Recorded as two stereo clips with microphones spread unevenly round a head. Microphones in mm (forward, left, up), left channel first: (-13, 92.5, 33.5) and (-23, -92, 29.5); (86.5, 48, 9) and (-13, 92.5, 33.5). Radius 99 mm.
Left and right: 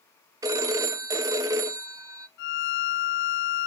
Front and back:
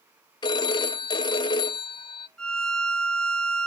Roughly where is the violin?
Ahead left.